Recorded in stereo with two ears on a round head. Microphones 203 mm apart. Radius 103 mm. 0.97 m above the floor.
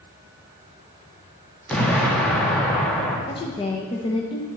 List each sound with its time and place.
1.7 s an explosion: 5° left (ahead or behind), 1.8 m
3.3 s a woman speaking: 20° left (ahead or behind), 0.8 m